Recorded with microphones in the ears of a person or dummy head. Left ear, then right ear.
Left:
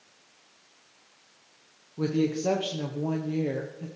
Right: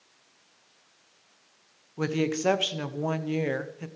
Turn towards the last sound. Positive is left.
turn(degrees=-50)  # may be behind; listen again after turning